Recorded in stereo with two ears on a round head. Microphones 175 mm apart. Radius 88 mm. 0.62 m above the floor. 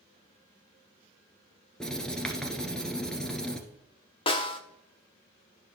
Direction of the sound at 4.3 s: 25° left (ahead or behind).